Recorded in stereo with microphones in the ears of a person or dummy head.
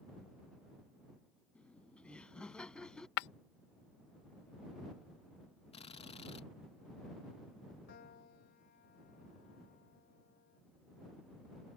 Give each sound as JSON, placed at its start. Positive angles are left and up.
{"t": 1.6, "sound": "laughter", "side_deg": 5}
{"t": 3.2, "sound": "breaking glass", "side_deg": 60}
{"t": 5.7, "sound": "a drill", "side_deg": 35}
{"t": 7.9, "sound": "a piano", "side_deg": 55}